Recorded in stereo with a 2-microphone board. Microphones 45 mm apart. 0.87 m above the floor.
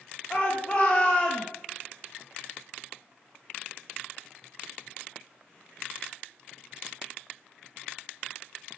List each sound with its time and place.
0.3 s a shout: 25° left (ahead or behind), 0.9 m